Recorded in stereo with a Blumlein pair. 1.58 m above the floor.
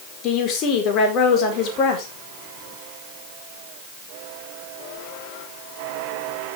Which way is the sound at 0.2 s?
35° left.